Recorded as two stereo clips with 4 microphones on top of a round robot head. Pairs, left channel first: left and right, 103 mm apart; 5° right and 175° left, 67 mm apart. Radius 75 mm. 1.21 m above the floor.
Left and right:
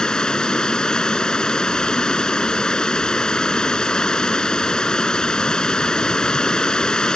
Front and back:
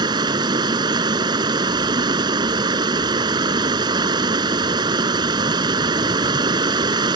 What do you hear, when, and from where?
0.0 s running water: 170° left